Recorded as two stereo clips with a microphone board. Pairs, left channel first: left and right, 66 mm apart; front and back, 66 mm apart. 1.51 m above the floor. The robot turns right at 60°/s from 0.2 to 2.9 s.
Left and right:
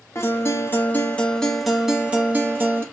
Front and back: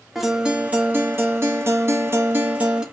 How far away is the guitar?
About 1.0 m.